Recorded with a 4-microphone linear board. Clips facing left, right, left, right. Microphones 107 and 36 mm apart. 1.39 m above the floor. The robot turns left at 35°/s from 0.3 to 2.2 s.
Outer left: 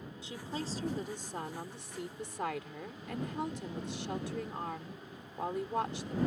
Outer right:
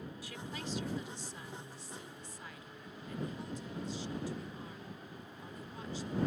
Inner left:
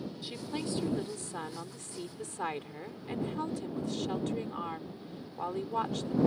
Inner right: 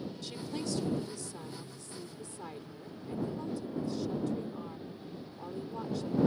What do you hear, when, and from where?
0.2 s a woman speaking: 155° left; by 6.3 s 90° left